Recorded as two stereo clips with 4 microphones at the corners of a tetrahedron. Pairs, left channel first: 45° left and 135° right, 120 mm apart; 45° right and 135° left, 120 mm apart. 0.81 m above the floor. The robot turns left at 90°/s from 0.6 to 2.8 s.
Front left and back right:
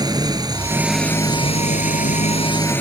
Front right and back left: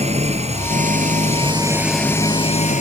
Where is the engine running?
165° left; by 2.8 s 30° right.